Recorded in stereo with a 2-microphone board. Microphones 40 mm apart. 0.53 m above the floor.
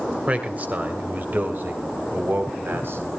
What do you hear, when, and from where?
0.3 s a man speaking: 35° right (ahead or behind), 2.5 m; by 3.2 s 70° right (ahead or behind), 4 m